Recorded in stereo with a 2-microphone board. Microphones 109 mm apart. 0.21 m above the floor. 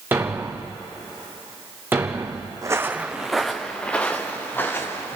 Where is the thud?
20° right (ahead or behind), 2.0 m.